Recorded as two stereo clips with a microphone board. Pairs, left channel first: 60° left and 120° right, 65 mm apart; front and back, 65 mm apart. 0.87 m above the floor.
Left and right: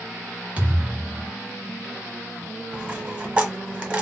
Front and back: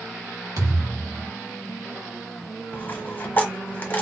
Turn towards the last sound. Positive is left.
turn(degrees=-60)